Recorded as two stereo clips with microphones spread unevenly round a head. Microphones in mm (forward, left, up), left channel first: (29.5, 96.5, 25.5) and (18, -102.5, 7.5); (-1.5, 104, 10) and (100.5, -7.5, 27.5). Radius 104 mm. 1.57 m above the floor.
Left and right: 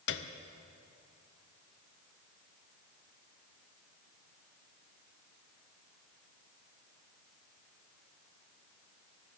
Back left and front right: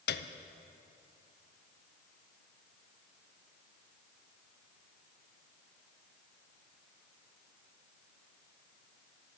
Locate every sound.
0.1 s a piano: 125° left, 0.7 m